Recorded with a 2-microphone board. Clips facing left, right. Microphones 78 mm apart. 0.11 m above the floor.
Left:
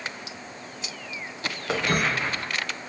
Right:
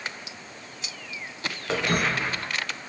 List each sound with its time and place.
1.7 s footsteps: 5° left (ahead or behind), 0.9 m